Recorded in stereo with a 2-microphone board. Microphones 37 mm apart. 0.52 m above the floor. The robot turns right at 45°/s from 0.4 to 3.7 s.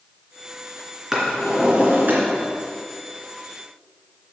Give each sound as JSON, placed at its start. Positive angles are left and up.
{"t": 1.1, "sound": "a drawer", "azimuth_deg": -170, "distance_m": 3.0}